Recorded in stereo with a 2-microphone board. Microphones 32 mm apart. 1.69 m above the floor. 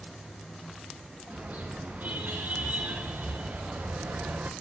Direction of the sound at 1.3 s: 55° right (ahead or behind).